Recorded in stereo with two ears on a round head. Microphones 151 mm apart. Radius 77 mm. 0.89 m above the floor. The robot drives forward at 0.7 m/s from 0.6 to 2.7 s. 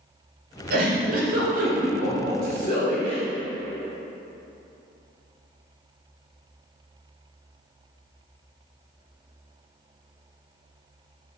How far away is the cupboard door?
No cupboard door in this recording.